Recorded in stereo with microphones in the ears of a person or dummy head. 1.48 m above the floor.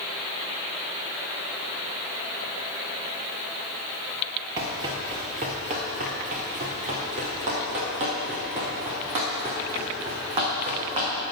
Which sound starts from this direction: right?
Running footsteps, at 4.6 s.